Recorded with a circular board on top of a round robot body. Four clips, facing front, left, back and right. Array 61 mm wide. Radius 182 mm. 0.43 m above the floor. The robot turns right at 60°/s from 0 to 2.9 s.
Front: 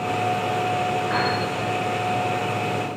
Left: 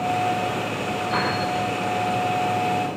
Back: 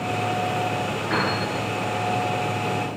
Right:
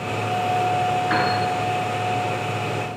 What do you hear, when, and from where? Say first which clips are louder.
1.1 s a piano: even, back 2 dB; 100° right, 5 m; by 1.3 s 85° right, 5 m